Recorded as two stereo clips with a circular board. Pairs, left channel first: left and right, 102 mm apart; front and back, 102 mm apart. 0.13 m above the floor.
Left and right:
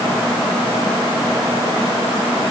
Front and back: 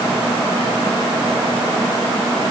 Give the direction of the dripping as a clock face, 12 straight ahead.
I don't hear dripping.